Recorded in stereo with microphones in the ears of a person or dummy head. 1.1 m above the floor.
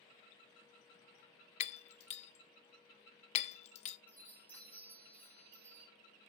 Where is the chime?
15° left (ahead or behind), 2.5 m.